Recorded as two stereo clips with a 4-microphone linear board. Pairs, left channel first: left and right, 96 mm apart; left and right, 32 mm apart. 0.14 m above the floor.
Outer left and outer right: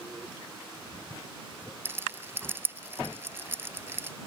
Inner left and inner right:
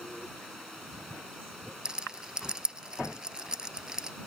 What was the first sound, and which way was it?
A rattle, 25° right (ahead or behind).